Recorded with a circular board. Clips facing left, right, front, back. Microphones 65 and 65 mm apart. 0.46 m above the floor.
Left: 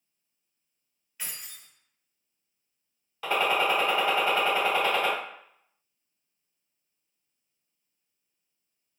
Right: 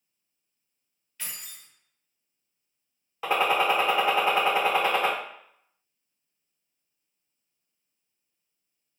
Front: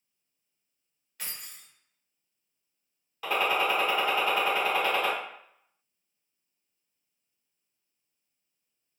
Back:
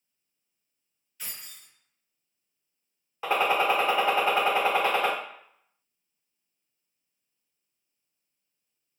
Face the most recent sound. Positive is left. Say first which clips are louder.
# right 2 dB, back 3 dB
turn(degrees=-140)